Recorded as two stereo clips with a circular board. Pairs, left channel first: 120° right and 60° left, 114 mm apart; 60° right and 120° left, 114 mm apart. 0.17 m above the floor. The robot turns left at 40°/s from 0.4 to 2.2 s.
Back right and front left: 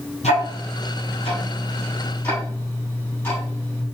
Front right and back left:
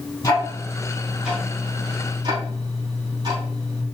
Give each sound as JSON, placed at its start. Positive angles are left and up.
{"t": 0.2, "sound": "ticking", "azimuth_deg": -120, "distance_m": 4.0}